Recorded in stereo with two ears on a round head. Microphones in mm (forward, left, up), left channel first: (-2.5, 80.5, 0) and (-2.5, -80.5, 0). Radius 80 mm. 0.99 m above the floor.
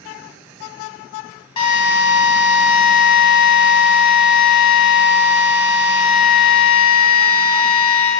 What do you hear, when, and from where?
1.6 s a drill: 30° left (ahead or behind), 1.7 m